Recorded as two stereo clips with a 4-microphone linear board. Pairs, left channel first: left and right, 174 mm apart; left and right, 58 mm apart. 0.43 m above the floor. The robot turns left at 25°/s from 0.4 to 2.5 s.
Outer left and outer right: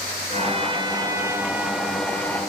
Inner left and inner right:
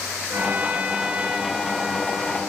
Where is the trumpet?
140° right, 2 m; by 2.4 s 170° left, 2 m.